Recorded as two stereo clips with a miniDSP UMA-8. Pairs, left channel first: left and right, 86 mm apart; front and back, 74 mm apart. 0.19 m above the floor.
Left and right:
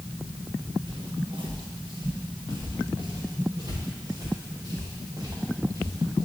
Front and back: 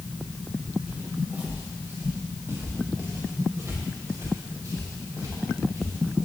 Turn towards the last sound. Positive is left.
turn(degrees=-145)